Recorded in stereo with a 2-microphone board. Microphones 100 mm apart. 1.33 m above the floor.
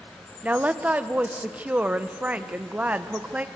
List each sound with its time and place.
0.4 s a woman speaking: 15° right (ahead or behind), 0.8 m